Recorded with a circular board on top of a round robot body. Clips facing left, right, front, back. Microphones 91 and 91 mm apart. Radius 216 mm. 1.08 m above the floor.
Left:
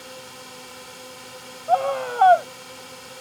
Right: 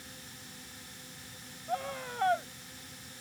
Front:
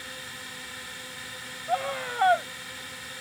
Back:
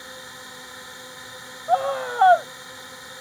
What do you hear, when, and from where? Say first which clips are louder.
0.0 s a drone: left 11 dB, back 2 dB; 110° left
1.7 s a scream: left 15 dB, back 7 dB; 125° left